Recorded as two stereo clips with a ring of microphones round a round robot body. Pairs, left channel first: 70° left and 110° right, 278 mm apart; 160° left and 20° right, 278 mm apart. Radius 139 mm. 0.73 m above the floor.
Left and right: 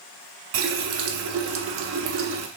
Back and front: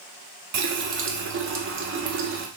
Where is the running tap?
70° right, 0.6 m.